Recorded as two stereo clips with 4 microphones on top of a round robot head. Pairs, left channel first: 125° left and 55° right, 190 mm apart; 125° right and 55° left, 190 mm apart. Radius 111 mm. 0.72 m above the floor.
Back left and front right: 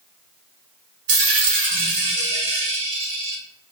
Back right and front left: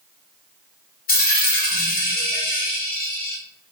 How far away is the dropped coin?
About 1.2 m.